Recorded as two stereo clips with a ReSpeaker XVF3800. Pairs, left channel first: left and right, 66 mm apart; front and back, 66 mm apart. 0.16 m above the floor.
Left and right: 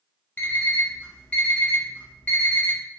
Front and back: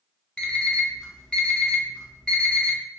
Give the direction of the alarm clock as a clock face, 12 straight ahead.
10 o'clock.